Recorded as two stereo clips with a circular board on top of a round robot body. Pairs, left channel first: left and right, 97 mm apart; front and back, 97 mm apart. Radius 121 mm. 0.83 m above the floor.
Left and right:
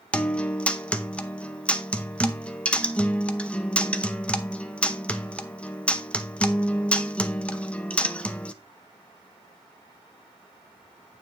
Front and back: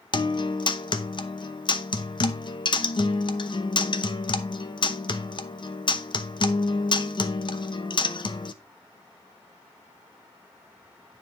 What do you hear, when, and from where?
0.1 s a guitar: 15° left, 1.0 m